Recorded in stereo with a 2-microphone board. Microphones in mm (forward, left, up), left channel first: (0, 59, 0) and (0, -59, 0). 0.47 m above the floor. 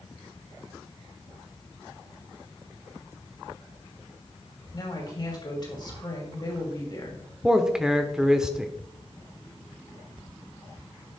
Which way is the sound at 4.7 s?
40° left (ahead or behind).